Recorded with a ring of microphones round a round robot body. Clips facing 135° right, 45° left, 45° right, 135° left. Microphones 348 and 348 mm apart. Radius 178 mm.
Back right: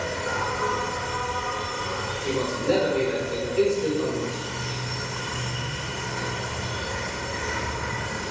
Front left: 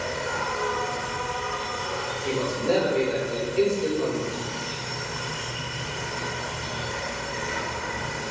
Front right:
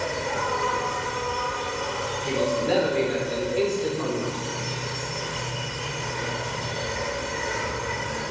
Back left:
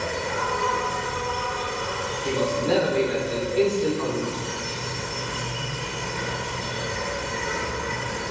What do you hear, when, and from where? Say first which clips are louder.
0.0 s an insect: back right 1 dB, even; 155° right, 1.3 m
2.2 s a man speaking: back right 1 dB, back left 1 dB; 135° left, 1.8 m